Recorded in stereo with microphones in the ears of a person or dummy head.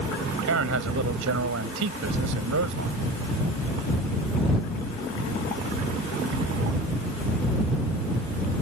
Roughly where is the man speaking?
Right.